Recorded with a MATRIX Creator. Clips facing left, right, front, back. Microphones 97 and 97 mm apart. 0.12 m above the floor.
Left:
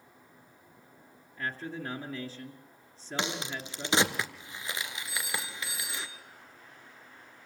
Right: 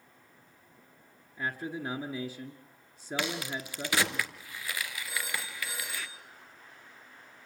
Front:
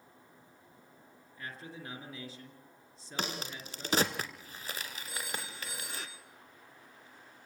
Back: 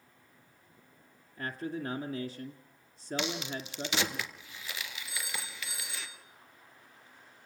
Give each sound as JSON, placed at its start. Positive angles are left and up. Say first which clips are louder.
{"t": 1.4, "sound": "a man speaking", "louder": "right 1 dB, back 9 dB", "azimuth_deg": -155, "distance_m": 2.0}
{"t": 3.2, "sound": "a crack", "louder": "even, back 2 dB", "azimuth_deg": 30, "distance_m": 1.6}
{"t": 5.1, "sound": "a phone ringing", "louder": "even, front 1 dB", "azimuth_deg": -45, "distance_m": 3.0}